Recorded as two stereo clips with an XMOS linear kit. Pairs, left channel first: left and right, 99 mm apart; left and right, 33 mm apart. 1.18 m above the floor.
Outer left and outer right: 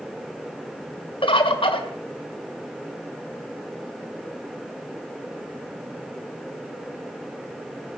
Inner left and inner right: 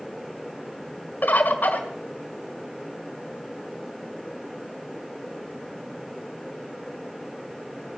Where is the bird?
60° left (ahead or behind), 1.8 m.